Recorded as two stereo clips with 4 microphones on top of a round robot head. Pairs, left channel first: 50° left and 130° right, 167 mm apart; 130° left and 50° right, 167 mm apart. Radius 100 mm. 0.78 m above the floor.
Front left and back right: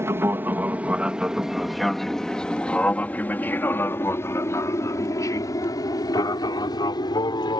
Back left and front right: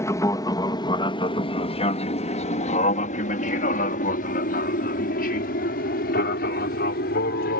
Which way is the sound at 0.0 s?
175° left.